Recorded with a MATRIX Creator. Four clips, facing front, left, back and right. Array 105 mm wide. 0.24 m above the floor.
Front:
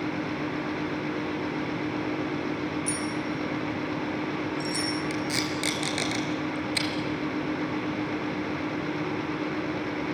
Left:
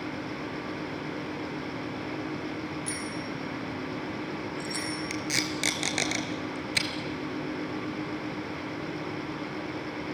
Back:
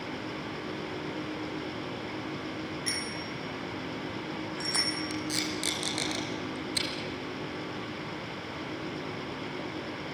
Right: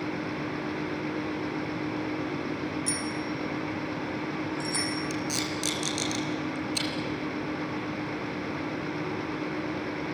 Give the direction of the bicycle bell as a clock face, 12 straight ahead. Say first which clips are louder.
Right 3 dB, front 7 dB; 6 o'clock.